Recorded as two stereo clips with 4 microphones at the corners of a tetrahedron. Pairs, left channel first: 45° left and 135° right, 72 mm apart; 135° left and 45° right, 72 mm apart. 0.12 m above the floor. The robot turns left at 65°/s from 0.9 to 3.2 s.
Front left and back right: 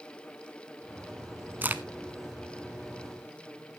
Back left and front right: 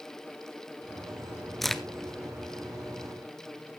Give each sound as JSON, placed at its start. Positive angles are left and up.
{"t": 1.6, "sound": "a crack", "azimuth_deg": -140, "distance_m": 0.6}